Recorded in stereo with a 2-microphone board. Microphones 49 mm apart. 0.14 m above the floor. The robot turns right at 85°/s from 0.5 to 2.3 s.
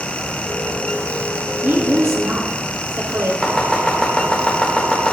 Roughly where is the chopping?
Centre.